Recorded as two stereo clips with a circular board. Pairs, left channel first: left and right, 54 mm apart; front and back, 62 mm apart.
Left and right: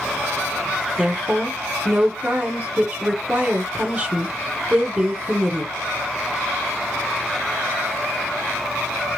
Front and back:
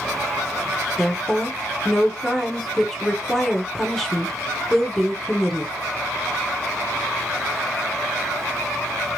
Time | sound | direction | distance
1.0 | a woman speaking | 80° right | 1.1 m